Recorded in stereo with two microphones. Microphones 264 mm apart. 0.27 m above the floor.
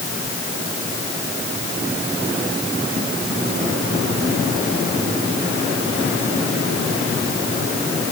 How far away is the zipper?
No zipper in this recording.